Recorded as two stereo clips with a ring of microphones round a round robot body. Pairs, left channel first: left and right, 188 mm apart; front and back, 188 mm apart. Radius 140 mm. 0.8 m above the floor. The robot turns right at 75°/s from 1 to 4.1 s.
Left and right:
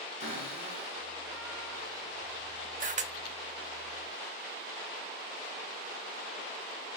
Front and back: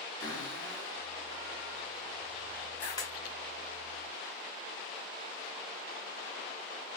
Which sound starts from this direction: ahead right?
A cupboard door, at 0.2 s.